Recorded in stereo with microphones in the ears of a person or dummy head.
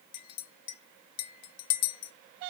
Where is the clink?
80° left, 0.5 m.